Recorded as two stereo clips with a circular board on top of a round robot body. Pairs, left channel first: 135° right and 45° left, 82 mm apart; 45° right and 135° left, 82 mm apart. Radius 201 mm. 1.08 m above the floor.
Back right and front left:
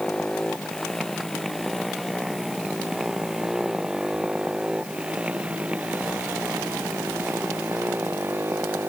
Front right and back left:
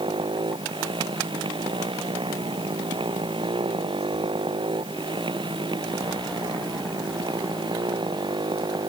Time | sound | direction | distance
0.0 | a motorcycle | 145° left | ?